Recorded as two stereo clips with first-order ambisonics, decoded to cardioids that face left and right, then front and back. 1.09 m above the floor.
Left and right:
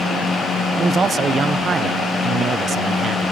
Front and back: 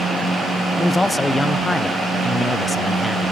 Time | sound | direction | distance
0.8 | a man speaking | 80° right | ?